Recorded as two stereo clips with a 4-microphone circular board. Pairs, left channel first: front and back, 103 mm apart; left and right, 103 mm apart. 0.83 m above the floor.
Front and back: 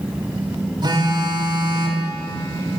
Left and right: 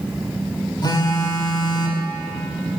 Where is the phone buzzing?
135° left, 2 m.